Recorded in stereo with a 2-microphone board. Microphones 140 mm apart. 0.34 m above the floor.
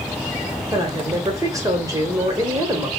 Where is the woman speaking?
25° right (ahead or behind), 1.1 m.